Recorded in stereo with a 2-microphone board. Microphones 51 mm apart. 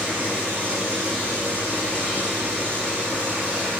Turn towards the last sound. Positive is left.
turn(degrees=-30)  # may be behind; listen again after turning